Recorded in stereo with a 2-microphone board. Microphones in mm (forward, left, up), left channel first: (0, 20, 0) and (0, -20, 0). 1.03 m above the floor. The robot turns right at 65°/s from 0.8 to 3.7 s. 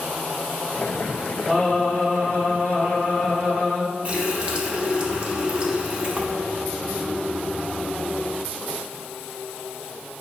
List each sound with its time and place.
1.5 s singing: 160° right, 1.8 m; by 3.8 s 15° right, 1.8 m
4.0 s a running tap: 30° right (ahead or behind), 0.5 m